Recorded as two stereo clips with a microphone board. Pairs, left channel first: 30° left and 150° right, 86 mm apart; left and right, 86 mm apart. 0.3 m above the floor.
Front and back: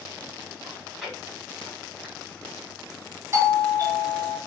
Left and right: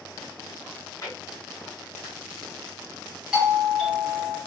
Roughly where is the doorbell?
Behind.